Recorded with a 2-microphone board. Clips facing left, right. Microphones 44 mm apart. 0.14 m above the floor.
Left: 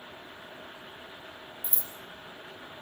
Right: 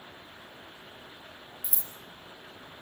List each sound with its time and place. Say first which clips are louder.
1.6 s scissors: left 3 dB; 50° left (ahead or behind), 2.5 m